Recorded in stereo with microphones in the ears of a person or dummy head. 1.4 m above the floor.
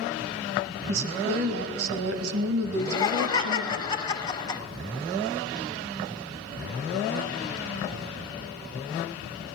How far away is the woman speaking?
About 2.0 m.